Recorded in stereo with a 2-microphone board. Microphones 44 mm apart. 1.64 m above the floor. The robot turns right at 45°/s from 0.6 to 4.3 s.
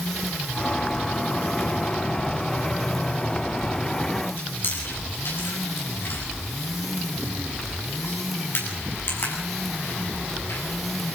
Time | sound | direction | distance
4.4 | chewing | 55° left (ahead or behind) | 8.5 m